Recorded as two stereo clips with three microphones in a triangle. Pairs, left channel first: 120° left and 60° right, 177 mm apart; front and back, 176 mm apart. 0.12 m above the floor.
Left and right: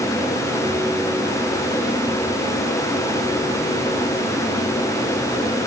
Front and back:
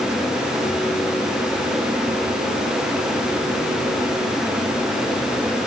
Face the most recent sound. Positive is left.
No sound to turn to.